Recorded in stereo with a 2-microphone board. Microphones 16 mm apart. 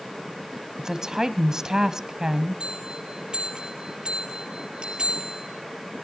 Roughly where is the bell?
Right.